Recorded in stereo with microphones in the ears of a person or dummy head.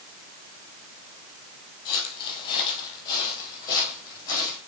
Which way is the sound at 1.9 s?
30° left (ahead or behind).